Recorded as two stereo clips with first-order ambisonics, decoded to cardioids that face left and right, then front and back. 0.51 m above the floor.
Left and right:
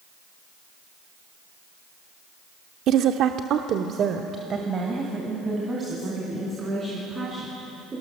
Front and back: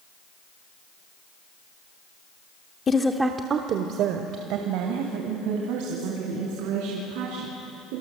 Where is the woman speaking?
60° right, 0.9 m; by 8.0 s 165° right, 6 m.